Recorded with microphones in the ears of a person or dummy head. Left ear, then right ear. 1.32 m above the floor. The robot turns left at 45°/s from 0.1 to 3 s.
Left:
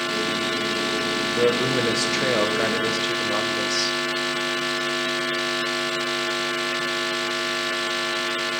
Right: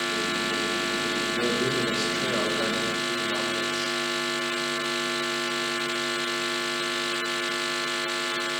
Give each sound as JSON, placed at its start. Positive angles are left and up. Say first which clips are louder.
{"t": 1.4, "sound": "a man speaking", "louder": "left 8 dB", "azimuth_deg": 130, "distance_m": 1.0}